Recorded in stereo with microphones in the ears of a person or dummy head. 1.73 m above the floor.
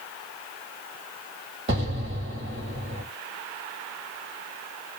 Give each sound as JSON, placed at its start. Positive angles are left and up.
{"t": 1.7, "sound": "an explosion", "side_deg": -35, "distance_m": 1.5}